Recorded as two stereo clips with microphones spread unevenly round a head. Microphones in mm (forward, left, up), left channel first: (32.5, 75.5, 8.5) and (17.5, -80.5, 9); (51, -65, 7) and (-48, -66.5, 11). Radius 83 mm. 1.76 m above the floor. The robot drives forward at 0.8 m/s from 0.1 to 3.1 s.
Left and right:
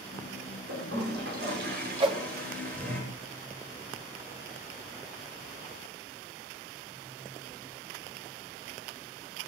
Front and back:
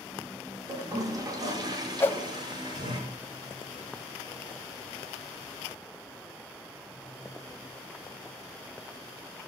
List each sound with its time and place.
0.7 s a toilet flushing: 125° right, 6 m; by 3.0 s 135° right, 7.5 m
2.0 s a whoosh: 55° right, 2 m; by 2.2 s 65° right, 2.0 m